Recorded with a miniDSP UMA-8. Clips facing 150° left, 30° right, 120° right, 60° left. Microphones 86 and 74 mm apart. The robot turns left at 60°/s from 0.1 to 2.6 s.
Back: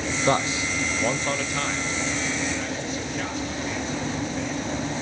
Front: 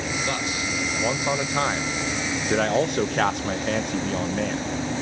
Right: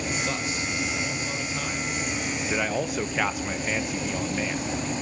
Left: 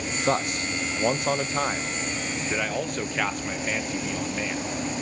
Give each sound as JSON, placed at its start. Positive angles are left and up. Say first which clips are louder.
{"t": 0.3, "sound": "a man speaking", "louder": "back 4 dB, left 4 dB", "azimuth_deg": 105, "distance_m": 0.6}